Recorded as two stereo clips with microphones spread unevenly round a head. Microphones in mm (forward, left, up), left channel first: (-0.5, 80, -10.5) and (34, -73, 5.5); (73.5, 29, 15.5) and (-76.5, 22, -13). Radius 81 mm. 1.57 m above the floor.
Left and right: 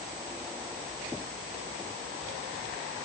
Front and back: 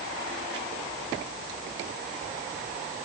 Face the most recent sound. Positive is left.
No sound to turn to.